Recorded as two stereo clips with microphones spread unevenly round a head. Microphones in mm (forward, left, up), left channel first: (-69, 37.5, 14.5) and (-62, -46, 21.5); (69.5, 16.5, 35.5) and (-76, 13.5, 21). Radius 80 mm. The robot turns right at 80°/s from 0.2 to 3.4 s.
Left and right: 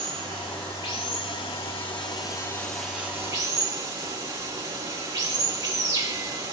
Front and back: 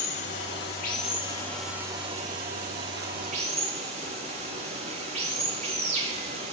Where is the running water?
25° right, 10 m; by 6.5 s 130° right, 10 m.